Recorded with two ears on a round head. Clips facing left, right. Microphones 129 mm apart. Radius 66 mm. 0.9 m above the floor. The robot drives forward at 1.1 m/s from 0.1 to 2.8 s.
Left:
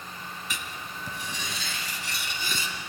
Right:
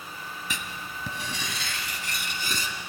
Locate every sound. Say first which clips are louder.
0.5 s writing: right 2 dB; 75° right (ahead or behind), 1.9 m; by 2.7 s 40° right (ahead or behind), 3 m